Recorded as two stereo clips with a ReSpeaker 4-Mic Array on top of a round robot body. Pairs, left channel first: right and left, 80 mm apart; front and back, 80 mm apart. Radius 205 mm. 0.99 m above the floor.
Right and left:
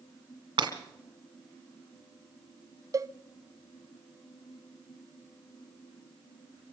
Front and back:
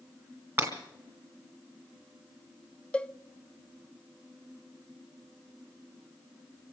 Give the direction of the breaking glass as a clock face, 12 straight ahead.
8 o'clock.